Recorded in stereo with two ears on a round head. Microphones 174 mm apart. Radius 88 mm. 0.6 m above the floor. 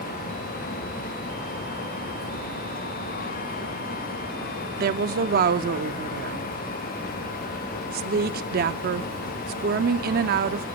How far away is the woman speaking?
About 0.8 m.